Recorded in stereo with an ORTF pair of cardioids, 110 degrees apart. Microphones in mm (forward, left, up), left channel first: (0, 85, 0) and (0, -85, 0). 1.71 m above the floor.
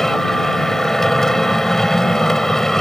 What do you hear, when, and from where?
0.0 s a machine running: straight ahead